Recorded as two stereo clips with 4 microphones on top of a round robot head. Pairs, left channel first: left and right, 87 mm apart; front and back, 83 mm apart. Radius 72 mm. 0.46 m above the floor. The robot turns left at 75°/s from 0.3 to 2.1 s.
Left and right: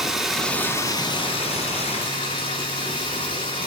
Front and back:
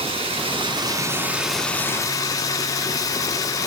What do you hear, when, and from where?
0.0 s running water: straight behind, 1.5 m; by 3.7 s 45° left, 1.5 m